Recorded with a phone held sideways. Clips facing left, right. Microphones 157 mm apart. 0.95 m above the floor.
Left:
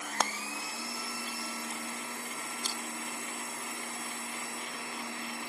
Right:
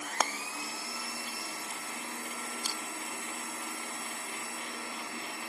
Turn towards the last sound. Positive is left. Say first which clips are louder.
# left 1 dB
turn(degrees=-10)  # may be behind; listen again after turning